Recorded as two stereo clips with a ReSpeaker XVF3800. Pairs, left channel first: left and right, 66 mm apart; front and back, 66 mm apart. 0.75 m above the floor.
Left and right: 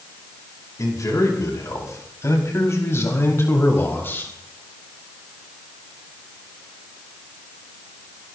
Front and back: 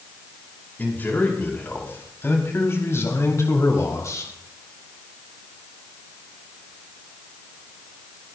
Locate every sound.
0.8 s a man speaking: 60° left, 5 m; by 4.3 s 35° left, 3.5 m